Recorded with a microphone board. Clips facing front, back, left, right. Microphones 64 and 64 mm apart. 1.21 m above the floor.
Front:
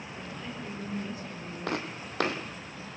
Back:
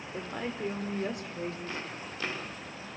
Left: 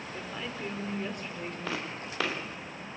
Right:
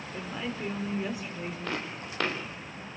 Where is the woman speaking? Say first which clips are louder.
Back 6 dB, right 4 dB; 175° right, 4.5 m.